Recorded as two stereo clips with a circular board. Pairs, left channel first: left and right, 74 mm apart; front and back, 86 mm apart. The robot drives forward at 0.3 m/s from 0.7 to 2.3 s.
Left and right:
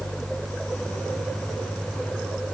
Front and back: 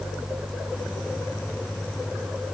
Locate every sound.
Only background noise.